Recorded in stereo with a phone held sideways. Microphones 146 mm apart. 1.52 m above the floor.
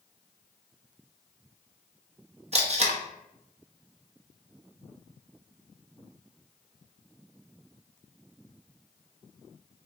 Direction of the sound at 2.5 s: 45° right (ahead or behind).